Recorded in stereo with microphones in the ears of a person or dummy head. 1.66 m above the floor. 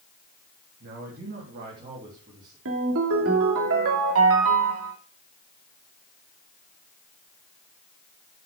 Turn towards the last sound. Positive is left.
turn(degrees=-70)  # may be behind; listen again after turning